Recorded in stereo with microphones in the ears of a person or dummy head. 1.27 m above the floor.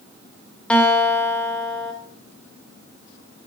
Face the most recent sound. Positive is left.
turn(degrees=5)  # may be behind; listen again after turning